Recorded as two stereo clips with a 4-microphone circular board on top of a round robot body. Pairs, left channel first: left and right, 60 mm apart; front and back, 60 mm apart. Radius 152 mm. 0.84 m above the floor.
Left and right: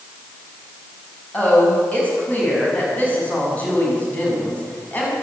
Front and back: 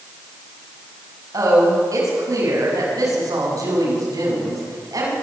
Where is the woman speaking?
155° left, 6.5 m.